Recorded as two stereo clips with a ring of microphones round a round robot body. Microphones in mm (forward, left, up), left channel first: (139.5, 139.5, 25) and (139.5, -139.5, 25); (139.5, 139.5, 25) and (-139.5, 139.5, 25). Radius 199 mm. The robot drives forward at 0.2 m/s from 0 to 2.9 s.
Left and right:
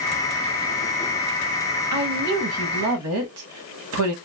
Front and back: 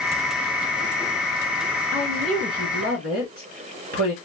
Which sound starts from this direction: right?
A woman speaking, at 1.9 s.